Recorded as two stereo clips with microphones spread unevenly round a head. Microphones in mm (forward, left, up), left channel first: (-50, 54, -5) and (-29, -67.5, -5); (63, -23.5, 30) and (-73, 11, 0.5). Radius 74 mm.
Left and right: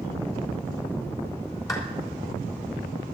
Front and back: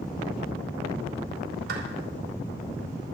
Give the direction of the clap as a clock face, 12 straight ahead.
7 o'clock.